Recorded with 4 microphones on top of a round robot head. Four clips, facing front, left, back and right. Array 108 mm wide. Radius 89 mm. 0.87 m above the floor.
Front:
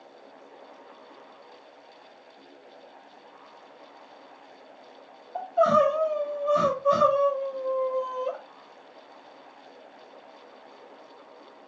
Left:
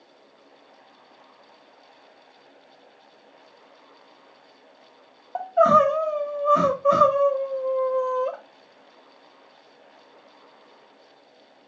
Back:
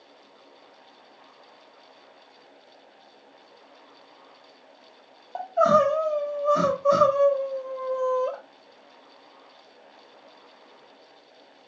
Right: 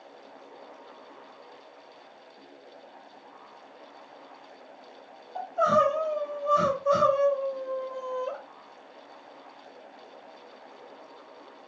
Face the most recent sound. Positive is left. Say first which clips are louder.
# left 6 dB, back 1 dB
turn(degrees=110)